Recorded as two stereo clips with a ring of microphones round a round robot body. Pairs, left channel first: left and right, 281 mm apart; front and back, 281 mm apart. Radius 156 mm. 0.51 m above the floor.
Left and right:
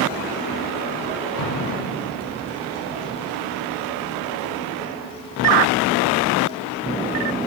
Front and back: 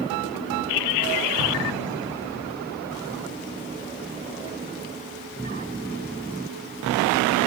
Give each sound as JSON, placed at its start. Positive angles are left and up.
{"t": 1.4, "sound": "an explosion", "azimuth_deg": 100, "distance_m": 4.5}